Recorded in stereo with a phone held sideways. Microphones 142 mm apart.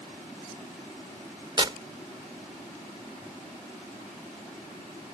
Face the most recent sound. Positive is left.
turn(degrees=-35)  # may be behind; listen again after turning